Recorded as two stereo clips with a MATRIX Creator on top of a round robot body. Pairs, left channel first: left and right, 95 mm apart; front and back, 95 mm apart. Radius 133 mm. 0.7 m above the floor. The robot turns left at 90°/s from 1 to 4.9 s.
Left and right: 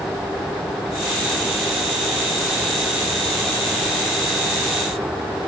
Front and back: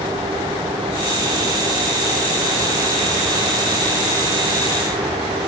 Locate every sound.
Only background noise.